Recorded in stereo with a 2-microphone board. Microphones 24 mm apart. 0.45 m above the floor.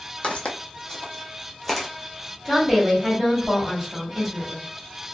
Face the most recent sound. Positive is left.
turn(degrees=-5)  # may be behind; listen again after turning